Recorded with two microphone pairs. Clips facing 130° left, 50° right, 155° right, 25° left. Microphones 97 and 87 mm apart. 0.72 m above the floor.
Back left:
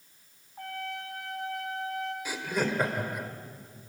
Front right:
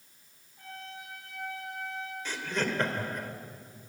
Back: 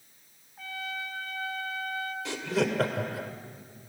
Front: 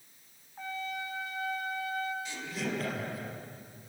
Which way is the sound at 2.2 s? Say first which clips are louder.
Back left 1 dB, back 8 dB; 150° right.